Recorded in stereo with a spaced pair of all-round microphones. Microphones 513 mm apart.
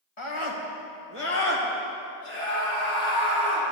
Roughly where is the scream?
Left.